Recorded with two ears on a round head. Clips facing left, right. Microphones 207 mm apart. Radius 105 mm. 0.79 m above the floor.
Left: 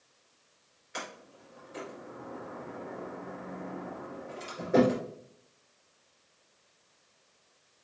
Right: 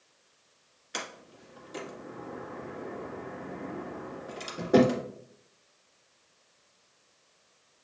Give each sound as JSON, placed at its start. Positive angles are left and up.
{"t": 0.9, "sound": "a sliding door", "side_deg": -50, "distance_m": 1.8}